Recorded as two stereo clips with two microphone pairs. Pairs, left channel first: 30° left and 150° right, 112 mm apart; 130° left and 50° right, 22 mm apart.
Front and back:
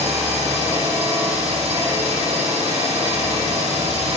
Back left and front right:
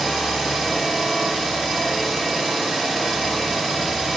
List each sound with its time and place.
0.0 s an engine running: 150° right, 1.2 m